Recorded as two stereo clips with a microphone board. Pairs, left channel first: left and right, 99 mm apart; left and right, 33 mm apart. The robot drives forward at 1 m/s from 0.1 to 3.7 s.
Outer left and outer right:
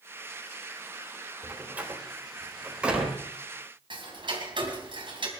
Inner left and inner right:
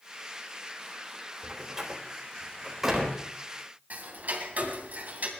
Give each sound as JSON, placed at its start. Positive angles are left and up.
{"t": 1.4, "sound": "a door slam", "side_deg": -20, "distance_m": 3.0}
{"t": 3.9, "sound": "ticking", "side_deg": -50, "distance_m": 3.0}